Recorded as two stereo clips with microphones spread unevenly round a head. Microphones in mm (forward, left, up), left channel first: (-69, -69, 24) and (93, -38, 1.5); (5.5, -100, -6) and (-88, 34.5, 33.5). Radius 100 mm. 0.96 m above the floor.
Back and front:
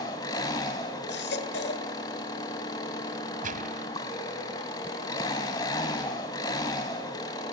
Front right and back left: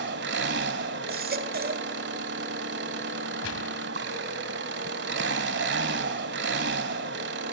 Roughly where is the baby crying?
Behind left.